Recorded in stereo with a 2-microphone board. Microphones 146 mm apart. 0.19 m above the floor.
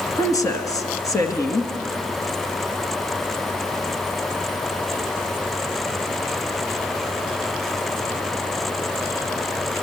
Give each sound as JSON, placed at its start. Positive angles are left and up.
{"t": 0.2, "sound": "a woman speaking", "side_deg": 25, "distance_m": 2.5}